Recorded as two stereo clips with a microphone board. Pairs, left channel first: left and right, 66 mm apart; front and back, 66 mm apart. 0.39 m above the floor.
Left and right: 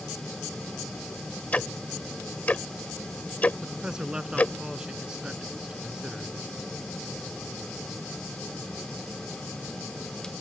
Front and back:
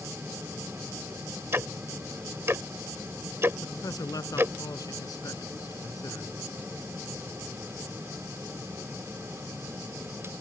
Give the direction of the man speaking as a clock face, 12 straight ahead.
12 o'clock.